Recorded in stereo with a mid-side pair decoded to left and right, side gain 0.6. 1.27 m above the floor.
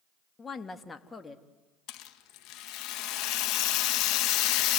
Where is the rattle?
70° left, 1.6 m.